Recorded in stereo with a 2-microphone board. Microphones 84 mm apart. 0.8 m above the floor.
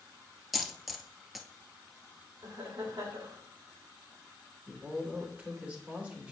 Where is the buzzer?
I don't hear a buzzer.